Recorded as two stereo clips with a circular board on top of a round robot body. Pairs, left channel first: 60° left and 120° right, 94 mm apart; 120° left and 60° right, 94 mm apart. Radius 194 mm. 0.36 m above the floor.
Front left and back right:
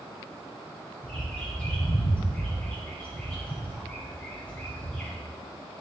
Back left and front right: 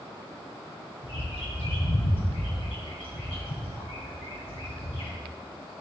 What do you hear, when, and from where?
1.0 s a bird: 135° left, 4 m